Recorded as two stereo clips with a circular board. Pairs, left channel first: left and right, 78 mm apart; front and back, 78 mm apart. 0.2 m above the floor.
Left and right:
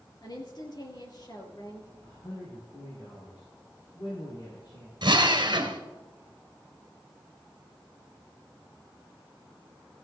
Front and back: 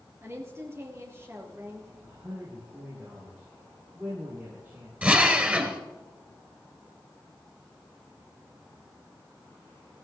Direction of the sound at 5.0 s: 110° right.